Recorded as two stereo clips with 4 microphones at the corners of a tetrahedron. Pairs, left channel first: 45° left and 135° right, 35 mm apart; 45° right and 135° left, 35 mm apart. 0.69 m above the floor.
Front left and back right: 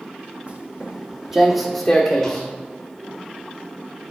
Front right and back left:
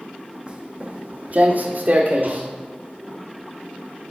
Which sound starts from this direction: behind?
Footsteps, at 0.5 s.